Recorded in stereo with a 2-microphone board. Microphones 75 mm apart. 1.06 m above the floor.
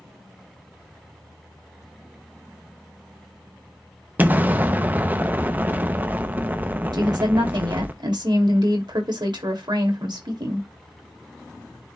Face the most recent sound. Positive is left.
turn(degrees=-75)  # may be behind; listen again after turning